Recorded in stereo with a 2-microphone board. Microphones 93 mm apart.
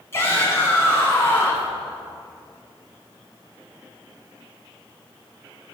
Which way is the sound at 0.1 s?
30° left (ahead or behind).